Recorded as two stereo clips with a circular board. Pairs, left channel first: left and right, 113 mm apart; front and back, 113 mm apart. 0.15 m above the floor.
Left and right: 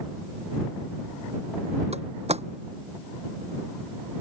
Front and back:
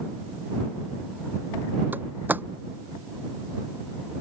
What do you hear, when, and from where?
1.9 s a door slam: 105° right